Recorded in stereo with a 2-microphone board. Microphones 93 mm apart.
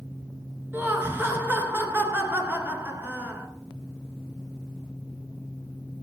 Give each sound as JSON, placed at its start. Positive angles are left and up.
{"t": 0.7, "sound": "laughter", "side_deg": -20, "distance_m": 1.8}